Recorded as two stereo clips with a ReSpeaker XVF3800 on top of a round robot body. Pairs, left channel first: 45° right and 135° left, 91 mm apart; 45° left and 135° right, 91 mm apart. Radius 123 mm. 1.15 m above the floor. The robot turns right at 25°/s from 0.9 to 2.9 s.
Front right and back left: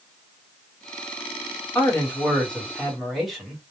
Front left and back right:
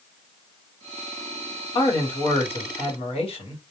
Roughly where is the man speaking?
Ahead.